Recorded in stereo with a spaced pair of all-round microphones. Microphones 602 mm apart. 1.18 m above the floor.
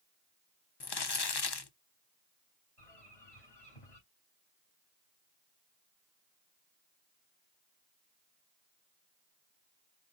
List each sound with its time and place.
0.8 s crumpling: 40° left (ahead or behind), 0.6 m
2.8 s a bird: 60° left (ahead or behind), 3.5 m